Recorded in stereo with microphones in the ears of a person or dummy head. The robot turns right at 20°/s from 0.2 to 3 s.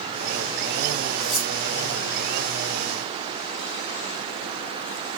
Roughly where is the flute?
I don't hear a flute.